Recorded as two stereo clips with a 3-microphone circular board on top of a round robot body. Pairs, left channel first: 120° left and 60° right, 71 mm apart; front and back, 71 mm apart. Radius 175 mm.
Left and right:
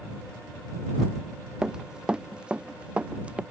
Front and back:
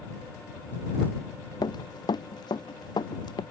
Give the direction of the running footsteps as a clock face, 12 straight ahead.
11 o'clock.